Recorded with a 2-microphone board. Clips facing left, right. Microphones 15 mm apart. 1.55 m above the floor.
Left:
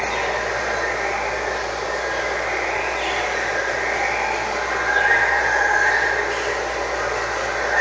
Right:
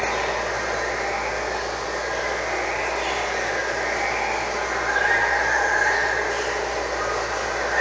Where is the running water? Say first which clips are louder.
Left 2 dB; 25° left (ahead or behind), 1.0 m.